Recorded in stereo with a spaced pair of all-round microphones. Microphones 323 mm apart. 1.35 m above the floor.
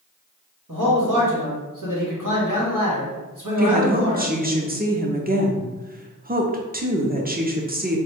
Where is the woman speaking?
30° right (ahead or behind), 0.7 m.